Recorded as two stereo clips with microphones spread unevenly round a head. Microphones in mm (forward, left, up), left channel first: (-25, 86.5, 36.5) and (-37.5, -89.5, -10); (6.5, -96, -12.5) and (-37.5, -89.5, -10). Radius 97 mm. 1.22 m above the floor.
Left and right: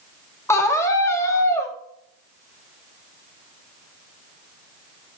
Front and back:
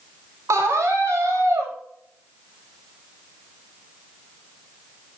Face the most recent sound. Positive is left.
turn(degrees=165)